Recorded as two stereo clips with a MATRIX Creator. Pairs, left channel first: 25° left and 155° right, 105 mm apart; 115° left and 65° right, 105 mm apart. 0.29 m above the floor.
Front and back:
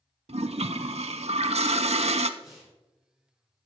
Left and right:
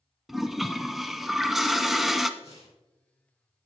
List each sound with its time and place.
0.3 s a toilet flushing: 155° right, 0.6 m
2.4 s tearing paper: 115° left, 4.5 m